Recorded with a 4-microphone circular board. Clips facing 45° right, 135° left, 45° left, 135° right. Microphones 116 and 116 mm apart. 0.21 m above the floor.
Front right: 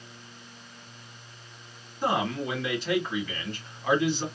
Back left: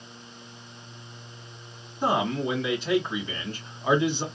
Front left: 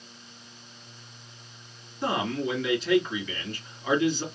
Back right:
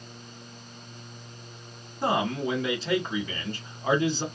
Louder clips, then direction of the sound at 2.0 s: Back left 2 dB, back right 2 dB; 165° right.